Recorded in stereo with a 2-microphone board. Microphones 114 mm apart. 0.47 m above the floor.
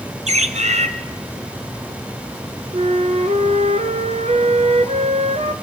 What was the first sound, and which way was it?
A bird, 85° right.